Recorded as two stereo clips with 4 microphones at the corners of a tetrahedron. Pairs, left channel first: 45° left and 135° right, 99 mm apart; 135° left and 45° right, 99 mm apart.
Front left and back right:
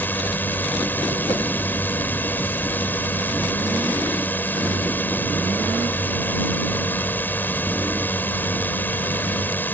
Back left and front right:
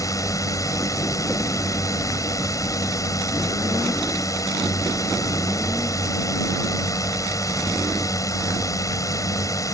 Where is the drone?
105° left.